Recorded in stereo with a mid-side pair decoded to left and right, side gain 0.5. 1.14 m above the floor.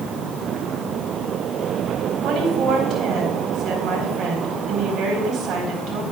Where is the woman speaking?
60° right, 4 m.